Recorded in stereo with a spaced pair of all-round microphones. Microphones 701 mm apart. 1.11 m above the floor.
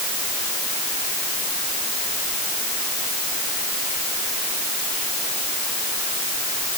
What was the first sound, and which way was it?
Only background noise.